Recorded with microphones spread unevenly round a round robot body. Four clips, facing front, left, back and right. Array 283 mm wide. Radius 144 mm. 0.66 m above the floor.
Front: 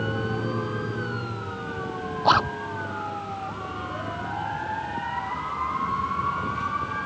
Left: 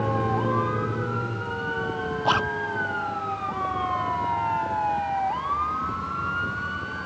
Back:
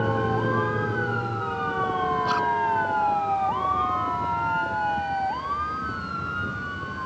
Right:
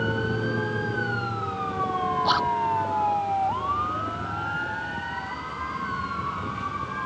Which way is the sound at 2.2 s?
20° left.